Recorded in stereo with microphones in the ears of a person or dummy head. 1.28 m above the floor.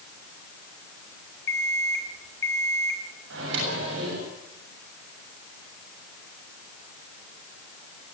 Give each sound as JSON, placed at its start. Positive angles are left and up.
{"t": 1.5, "sound": "an alarm clock", "side_deg": 20, "distance_m": 4.0}
{"t": 3.3, "sound": "a microwave", "side_deg": -75, "distance_m": 7.0}